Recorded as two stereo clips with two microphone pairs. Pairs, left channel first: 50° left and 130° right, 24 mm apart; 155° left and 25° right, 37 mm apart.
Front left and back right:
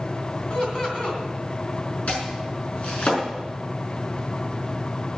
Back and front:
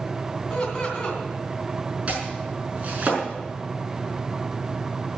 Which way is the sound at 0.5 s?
85° left.